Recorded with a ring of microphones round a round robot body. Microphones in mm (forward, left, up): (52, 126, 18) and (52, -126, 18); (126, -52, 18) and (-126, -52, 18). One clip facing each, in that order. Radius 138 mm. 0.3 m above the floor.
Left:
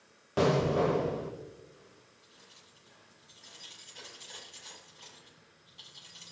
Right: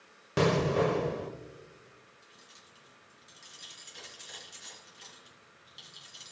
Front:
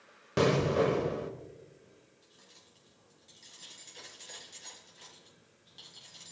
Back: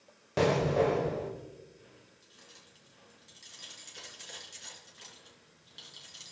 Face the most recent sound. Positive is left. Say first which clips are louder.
# right 1 dB, back 2 dB
turn(degrees=-110)